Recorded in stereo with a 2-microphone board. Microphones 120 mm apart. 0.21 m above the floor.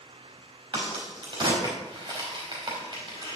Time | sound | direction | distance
0.7 | a crack | 40° right (ahead or behind) | 4 m